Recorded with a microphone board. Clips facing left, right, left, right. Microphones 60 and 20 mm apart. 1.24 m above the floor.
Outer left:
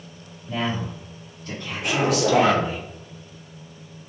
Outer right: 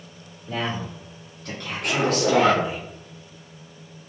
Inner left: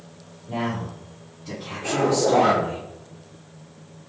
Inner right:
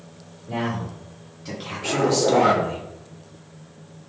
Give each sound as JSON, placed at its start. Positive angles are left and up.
{"t": 0.5, "sound": "a man speaking", "side_deg": -70, "distance_m": 2.0}
{"t": 1.8, "sound": "a zipper", "side_deg": 5, "distance_m": 1.1}